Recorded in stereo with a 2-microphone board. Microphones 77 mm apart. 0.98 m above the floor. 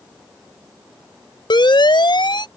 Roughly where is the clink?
I don't hear a clink.